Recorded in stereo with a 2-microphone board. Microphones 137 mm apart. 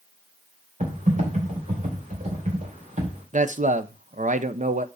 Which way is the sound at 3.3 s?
65° right (ahead or behind).